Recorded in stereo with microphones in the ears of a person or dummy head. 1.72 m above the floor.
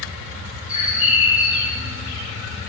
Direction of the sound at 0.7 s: 35° left (ahead or behind).